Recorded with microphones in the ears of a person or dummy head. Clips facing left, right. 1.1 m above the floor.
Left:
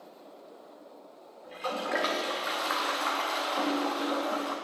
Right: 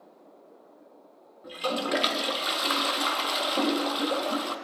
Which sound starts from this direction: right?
A toilet flushing, at 1.4 s.